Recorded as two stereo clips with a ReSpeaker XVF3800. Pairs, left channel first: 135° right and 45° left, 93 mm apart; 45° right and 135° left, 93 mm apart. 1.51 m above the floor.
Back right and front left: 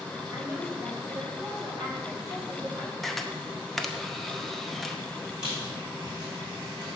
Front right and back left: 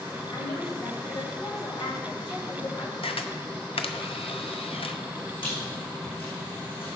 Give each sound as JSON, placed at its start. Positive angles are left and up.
{"t": 0.3, "sound": "a woman speaking", "azimuth_deg": -5, "distance_m": 3.5}
{"t": 3.0, "sound": "a camera shutter", "azimuth_deg": -50, "distance_m": 0.7}
{"t": 5.4, "sound": "a squeak", "azimuth_deg": -35, "distance_m": 4.5}